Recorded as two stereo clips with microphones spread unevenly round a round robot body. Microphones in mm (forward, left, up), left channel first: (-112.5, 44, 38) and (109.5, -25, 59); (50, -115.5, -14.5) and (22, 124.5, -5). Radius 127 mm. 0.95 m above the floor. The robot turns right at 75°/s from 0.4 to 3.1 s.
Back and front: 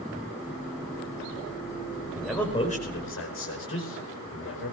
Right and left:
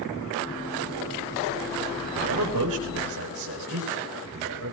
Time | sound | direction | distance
2.1 | a man speaking | 65° left | 5 m